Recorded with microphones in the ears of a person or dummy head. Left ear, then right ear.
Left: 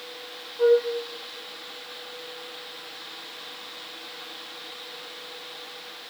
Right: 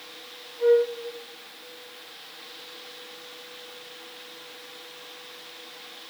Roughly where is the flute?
Left.